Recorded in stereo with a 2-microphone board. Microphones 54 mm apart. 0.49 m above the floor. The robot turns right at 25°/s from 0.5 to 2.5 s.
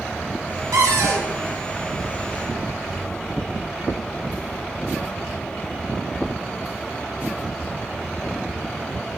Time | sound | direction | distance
0.7 | a cupboard door | 80° right | 0.6 m